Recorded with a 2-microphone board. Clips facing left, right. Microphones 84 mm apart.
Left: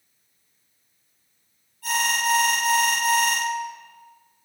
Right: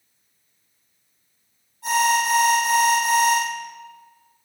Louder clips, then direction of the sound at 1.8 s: Right 5 dB; 20° right (ahead or behind).